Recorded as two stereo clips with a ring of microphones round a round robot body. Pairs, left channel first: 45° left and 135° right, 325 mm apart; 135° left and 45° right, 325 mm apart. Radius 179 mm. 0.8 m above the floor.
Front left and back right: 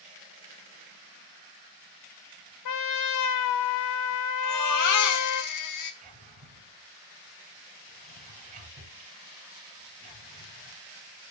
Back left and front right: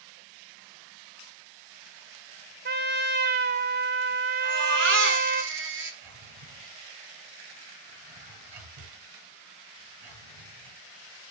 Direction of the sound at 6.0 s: 70° right.